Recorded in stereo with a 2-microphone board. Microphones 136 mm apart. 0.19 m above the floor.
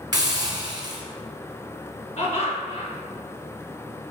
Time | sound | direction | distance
0.1 | a hiss | 35° right (ahead or behind) | 1.5 m
2.2 | laughter | 55° left (ahead or behind) | 2.5 m